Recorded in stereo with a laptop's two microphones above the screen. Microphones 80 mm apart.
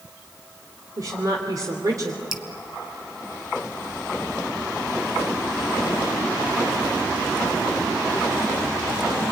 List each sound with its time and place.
1.0 s a woman speaking: 50° right (ahead or behind), 3 m
2.3 s dripping: 5° right (ahead or behind), 1.8 m